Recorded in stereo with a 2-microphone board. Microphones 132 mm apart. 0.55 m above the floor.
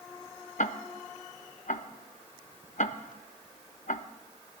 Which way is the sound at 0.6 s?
70° left (ahead or behind).